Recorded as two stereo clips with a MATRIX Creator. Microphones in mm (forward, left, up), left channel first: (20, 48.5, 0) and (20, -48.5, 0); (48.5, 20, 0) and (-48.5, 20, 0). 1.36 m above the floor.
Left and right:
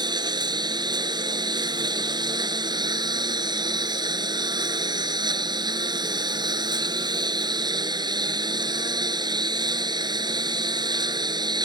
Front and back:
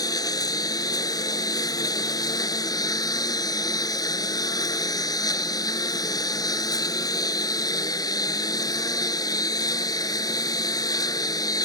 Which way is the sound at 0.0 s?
50° right.